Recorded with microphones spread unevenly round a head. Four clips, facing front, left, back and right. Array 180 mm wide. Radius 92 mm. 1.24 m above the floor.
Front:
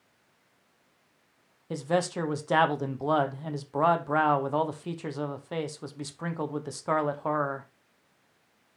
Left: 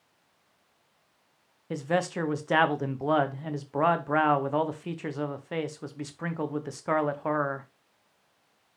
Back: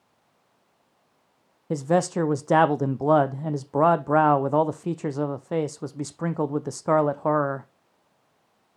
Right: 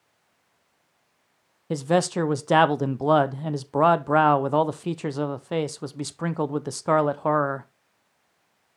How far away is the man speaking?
About 0.6 m.